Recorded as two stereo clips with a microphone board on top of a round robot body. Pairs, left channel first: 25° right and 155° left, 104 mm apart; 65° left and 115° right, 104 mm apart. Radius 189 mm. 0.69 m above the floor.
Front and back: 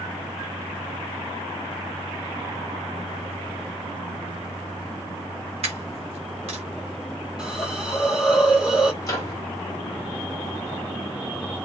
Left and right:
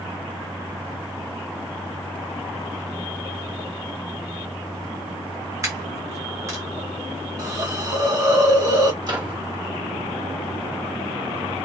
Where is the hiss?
125° right, 1.3 m.